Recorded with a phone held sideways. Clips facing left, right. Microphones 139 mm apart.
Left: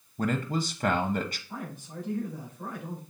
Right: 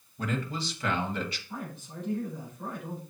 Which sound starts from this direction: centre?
A man speaking, at 1.5 s.